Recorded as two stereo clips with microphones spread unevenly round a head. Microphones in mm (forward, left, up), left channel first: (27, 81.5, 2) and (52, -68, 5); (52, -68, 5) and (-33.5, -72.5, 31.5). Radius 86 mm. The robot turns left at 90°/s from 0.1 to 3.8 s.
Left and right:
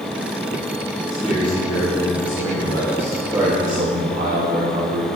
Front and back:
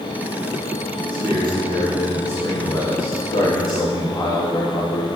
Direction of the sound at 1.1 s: 165° right.